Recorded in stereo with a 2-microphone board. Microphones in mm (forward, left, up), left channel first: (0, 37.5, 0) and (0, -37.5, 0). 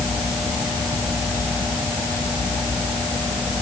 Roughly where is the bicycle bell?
No bicycle bell in this recording.